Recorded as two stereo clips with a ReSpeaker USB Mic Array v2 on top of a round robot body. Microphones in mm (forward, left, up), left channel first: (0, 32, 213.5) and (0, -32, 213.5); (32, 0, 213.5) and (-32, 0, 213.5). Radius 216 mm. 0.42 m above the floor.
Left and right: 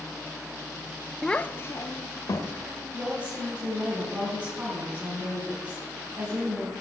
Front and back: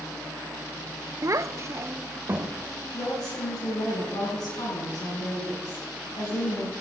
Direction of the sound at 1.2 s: 175° left.